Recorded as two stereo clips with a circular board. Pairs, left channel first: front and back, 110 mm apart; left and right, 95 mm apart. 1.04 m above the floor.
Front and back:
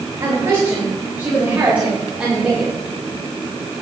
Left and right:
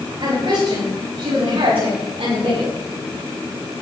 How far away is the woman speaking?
About 4.5 m.